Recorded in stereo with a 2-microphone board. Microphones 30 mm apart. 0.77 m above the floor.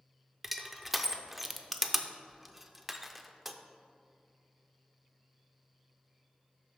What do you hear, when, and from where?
0.4 s crushing: 5° right (ahead or behind), 0.5 m